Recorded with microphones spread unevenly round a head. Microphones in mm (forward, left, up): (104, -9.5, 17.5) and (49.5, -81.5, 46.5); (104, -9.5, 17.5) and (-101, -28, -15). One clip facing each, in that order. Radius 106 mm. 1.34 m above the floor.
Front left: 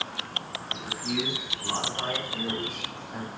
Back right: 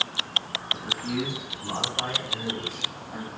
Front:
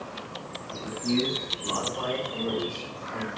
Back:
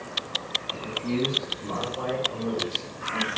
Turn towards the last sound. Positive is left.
turn(degrees=-120)